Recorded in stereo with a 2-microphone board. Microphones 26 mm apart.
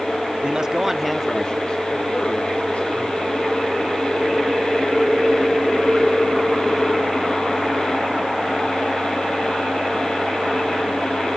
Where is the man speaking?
35° right (ahead or behind), 0.9 m; by 3.3 s 70° left (ahead or behind), 2 m.